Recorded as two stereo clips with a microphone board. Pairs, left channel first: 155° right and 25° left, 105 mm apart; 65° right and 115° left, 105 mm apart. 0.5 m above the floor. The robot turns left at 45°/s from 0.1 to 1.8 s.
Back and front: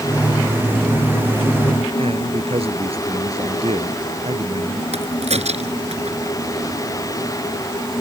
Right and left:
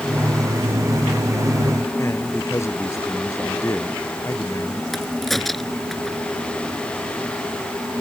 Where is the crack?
20° left.